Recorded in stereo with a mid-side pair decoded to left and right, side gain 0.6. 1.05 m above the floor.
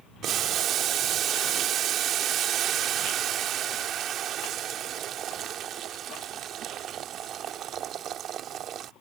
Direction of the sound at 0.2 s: 55° right.